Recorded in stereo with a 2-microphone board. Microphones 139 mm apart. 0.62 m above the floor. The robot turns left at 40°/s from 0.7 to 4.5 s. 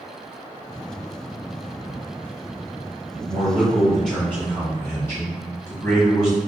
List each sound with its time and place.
3.2 s a man speaking: 150° right, 1.5 m; by 6.4 s 160° left, 1.5 m